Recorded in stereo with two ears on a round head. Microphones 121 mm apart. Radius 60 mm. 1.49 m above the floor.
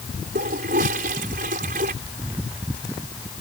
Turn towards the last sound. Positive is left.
turn(degrees=-70)  # may be behind; listen again after turning